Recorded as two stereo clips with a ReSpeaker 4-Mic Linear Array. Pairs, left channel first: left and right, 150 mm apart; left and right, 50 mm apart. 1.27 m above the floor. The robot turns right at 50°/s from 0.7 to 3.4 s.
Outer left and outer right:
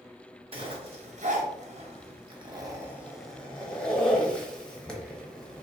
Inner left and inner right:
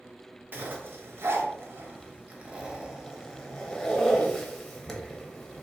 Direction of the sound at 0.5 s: 40° right (ahead or behind).